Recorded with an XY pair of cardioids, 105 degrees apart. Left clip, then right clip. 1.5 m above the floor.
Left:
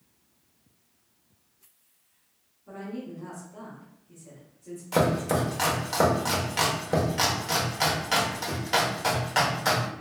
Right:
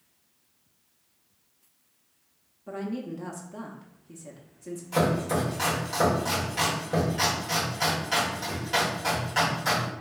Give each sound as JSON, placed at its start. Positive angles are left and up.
{"t": 2.7, "sound": "a woman speaking", "azimuth_deg": -60, "distance_m": 0.7}
{"t": 4.9, "sound": "chopping", "azimuth_deg": 45, "distance_m": 1.3}